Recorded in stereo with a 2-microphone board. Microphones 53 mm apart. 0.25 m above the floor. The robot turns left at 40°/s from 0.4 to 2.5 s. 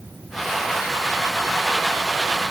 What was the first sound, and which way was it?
Only background noise.